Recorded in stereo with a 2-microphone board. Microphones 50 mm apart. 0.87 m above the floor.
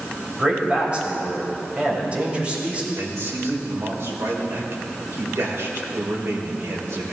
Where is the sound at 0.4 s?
25° right (ahead or behind), 4.5 m.